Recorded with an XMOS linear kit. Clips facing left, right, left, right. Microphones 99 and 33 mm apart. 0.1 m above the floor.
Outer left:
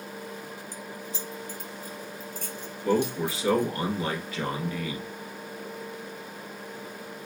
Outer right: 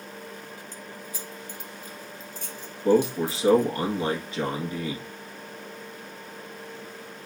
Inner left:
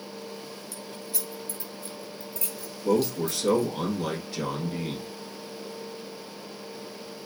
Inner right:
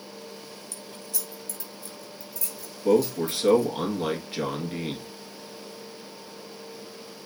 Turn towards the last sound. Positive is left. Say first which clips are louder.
# outer right 4 dB, inner right 3 dB
turn(degrees=-30)  # may be behind; listen again after turning